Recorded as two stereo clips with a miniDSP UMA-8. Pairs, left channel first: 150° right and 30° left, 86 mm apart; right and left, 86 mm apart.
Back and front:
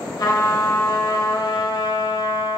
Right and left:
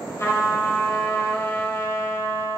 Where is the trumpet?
140° right, 1.7 m.